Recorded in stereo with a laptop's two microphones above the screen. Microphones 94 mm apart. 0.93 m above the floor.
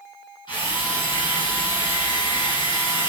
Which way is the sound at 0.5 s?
60° left (ahead or behind).